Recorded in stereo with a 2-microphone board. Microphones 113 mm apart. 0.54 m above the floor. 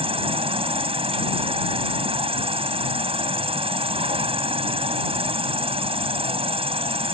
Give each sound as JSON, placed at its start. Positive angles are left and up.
{"t": 0.0, "sound": "an insect", "side_deg": -60}